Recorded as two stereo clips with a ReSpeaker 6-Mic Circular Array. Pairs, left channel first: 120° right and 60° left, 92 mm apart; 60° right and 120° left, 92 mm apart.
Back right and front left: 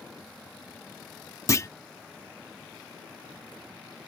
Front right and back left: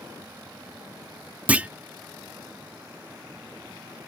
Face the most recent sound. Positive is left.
turn(degrees=-170)